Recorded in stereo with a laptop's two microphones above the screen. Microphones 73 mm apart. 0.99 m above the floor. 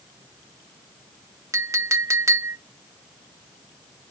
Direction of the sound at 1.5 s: 45° right (ahead or behind).